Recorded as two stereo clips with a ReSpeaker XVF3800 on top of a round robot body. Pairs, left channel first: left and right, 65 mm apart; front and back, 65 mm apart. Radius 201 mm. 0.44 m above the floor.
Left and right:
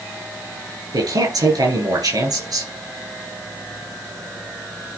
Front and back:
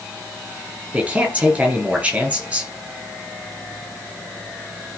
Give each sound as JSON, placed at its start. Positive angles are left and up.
{"t": 0.9, "sound": "a man speaking", "azimuth_deg": -110, "distance_m": 6.5}